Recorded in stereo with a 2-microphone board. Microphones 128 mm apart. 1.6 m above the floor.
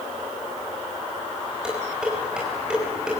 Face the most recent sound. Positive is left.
turn(degrees=-5)  # may be behind; listen again after turning